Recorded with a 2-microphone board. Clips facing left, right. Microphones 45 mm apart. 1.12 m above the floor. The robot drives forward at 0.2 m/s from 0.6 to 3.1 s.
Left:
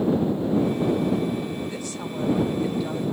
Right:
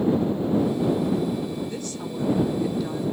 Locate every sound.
1.7 s a woman speaking: 10° left (ahead or behind), 2 m